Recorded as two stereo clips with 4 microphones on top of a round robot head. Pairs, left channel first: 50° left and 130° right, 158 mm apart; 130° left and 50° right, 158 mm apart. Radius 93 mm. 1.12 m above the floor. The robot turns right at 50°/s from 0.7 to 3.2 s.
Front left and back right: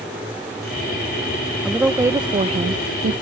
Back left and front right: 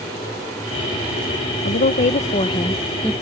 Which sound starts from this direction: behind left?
A woman speaking, at 1.6 s.